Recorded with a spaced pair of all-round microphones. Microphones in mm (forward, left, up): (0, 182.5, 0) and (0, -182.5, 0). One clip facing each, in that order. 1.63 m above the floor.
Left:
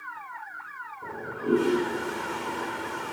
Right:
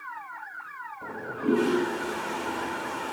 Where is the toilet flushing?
80° right, 3 m.